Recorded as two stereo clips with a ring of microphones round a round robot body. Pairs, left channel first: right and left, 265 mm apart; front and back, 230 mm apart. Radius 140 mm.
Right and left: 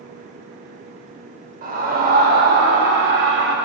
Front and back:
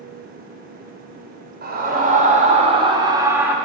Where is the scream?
140° left, 2.5 m; by 3.5 s 100° left, 1.8 m.